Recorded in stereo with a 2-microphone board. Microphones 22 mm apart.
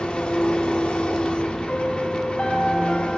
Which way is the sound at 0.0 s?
65° left (ahead or behind).